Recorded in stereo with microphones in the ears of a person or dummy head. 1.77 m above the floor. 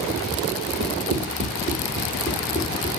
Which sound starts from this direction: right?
Running footsteps, at 0.8 s.